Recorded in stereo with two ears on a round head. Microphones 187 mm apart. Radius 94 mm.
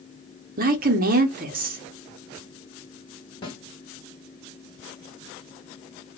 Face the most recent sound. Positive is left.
turn(degrees=25)  # may be behind; listen again after turning